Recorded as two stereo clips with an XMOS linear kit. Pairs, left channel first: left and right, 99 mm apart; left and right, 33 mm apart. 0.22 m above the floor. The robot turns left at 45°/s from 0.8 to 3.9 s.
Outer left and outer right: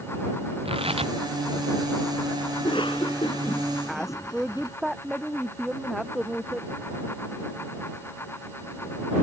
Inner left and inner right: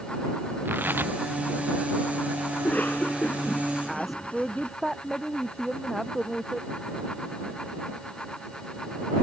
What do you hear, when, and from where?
0.7 s tearing paper: 70° right (ahead or behind); by 1.1 s 85° right
2.5 s a cough: 50° left (ahead or behind); by 4.8 s 45° left (ahead or behind)
3.9 s a woman speaking: 5° right (ahead or behind); by 6.7 s centre (ahead or behind)